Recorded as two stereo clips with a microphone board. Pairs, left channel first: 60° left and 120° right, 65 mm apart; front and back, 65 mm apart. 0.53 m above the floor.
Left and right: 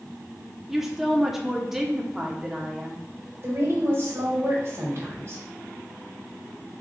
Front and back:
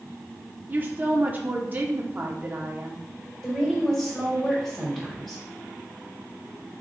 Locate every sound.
0.7 s a woman speaking: 160° left, 0.8 m
3.4 s a woman speaking: 85° right, 2.5 m